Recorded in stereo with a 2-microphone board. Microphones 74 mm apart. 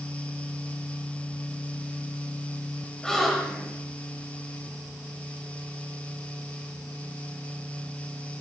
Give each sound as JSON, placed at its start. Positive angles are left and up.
{"t": 3.0, "sound": "a gasp", "side_deg": 10, "distance_m": 3.0}